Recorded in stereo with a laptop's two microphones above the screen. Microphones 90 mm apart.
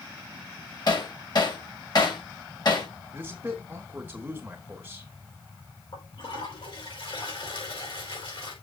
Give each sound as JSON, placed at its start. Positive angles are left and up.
{"t": 0.9, "sound": "hammering", "side_deg": 50, "distance_m": 2.0}
{"t": 3.1, "sound": "a man speaking", "side_deg": -20, "distance_m": 3.0}
{"t": 5.9, "sound": "a toilet flushing", "side_deg": 75, "distance_m": 5.5}